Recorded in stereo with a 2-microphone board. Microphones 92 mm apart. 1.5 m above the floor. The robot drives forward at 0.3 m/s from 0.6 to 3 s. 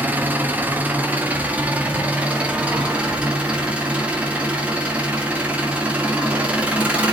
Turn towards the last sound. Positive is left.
turn(degrees=-15)  # may be behind; listen again after turning